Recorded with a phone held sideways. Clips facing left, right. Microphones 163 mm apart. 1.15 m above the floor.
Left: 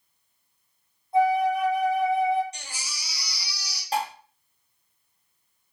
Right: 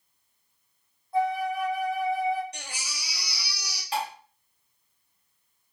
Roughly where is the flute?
Left.